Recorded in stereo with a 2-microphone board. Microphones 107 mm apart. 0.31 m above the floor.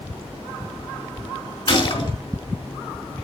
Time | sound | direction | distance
1.7 | a gunshot | 50° left (ahead or behind) | 3.5 m